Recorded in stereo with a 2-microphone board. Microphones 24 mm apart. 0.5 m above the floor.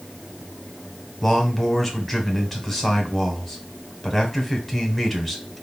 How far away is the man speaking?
About 1.5 m.